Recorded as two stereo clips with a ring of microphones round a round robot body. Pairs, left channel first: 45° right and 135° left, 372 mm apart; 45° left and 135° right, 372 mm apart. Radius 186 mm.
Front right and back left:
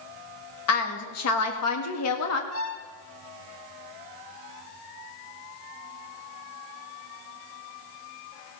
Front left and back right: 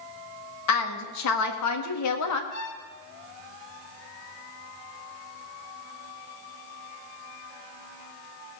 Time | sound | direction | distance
0.7 | a woman speaking | straight ahead | 1.8 m
2.5 | a violin | 5° left | 1.4 m